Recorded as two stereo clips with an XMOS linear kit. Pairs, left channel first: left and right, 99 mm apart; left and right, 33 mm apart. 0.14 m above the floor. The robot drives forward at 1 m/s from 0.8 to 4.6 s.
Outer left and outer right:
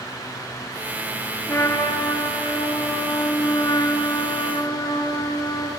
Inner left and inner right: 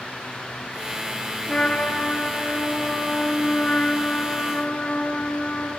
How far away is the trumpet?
About 3.5 m.